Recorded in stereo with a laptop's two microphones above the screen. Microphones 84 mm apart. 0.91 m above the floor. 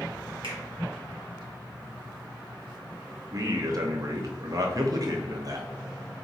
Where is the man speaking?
45° right (ahead or behind), 0.7 m.